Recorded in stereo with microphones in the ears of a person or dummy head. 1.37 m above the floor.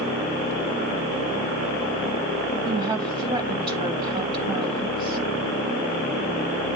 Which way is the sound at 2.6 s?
25° right (ahead or behind).